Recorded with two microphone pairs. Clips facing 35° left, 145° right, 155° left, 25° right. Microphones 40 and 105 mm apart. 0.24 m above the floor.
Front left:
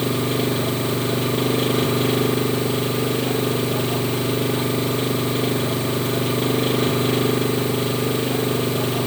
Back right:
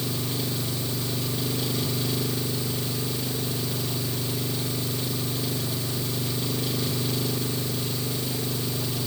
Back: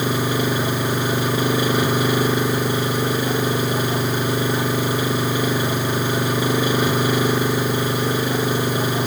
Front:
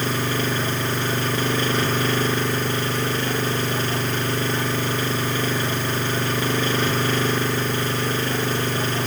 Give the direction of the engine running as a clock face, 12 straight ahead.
9 o'clock.